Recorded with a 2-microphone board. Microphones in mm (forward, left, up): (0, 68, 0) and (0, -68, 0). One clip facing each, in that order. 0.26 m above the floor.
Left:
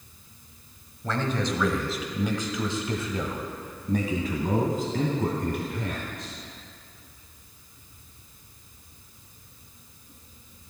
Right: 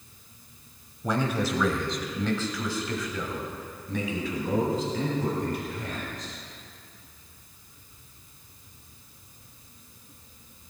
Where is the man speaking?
15° right (ahead or behind), 1.4 m; by 6.3 s 65° left (ahead or behind), 3 m.